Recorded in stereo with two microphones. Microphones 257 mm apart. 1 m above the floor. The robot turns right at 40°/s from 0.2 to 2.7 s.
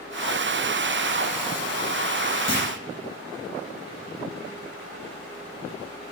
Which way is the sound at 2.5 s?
20° left (ahead or behind).